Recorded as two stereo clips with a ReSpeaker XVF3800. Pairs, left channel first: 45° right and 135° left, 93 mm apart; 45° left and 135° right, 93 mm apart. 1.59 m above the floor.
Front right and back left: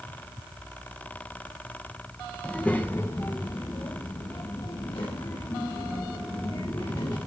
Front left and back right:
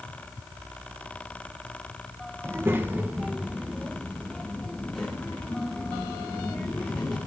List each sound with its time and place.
2.4 s a child speaking: 125° right, 0.8 m; by 7.2 s 35° right, 2.5 m